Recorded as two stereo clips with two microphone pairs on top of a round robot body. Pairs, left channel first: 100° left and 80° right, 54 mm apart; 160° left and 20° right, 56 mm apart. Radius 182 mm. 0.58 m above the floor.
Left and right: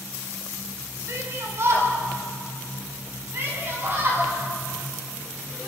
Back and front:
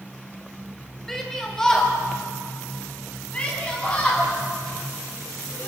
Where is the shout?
115° right, 5.5 m; by 5.7 s 135° right, 10.5 m.